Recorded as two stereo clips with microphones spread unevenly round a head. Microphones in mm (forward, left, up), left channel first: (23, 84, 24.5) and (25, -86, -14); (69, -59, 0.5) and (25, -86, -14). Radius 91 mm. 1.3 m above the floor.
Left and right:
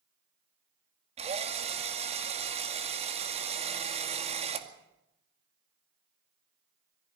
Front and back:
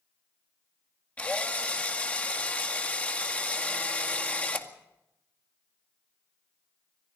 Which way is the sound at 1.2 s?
35° right.